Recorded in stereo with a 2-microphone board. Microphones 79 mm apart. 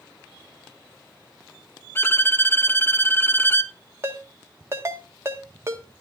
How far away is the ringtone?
About 1.6 m.